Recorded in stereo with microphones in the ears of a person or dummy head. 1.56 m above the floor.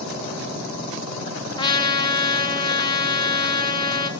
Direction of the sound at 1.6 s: 30° left (ahead or behind).